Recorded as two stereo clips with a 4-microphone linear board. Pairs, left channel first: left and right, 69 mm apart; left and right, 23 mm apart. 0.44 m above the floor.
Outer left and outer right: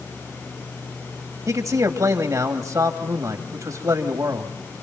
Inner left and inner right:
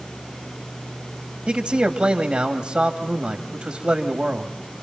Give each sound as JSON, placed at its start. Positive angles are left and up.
{"t": 1.5, "sound": "a man speaking", "side_deg": -50, "distance_m": 2.5}